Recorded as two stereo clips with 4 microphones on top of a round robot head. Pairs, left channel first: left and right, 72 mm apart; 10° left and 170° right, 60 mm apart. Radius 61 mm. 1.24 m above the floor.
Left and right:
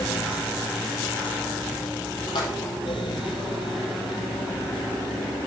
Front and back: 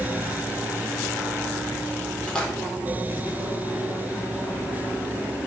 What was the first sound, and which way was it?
A splash, 80° left.